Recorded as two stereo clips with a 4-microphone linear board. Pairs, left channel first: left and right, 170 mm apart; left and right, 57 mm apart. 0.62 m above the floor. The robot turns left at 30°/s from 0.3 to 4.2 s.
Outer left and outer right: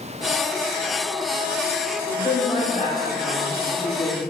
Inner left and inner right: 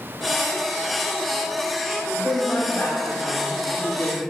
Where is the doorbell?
I don't hear a doorbell.